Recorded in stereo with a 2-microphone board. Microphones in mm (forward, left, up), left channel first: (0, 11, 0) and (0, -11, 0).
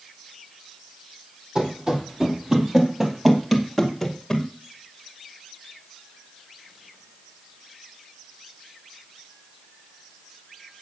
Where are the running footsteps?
35° right (ahead or behind), 2.5 m; by 4.5 s 15° left (ahead or behind), 2 m.